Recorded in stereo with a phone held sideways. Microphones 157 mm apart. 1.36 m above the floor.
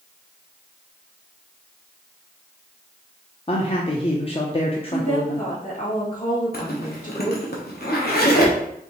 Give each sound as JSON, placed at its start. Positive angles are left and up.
{"t": 3.5, "sound": "a man speaking", "side_deg": 35, "distance_m": 0.5}
{"t": 4.9, "sound": "a woman speaking", "side_deg": 50, "distance_m": 2.0}
{"t": 6.5, "sound": "a zipper", "side_deg": 70, "distance_m": 0.9}